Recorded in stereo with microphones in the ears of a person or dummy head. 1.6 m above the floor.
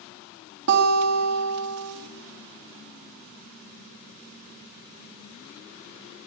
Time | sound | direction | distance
0.7 | a guitar | 65° right (ahead or behind) | 1.8 m